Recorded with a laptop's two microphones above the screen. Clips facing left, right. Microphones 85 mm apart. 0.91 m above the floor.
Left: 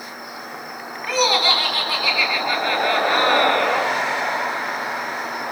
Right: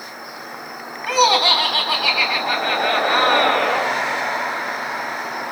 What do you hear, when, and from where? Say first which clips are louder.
1.1 s laughter: right 3 dB; 65° right (ahead or behind), 7.5 m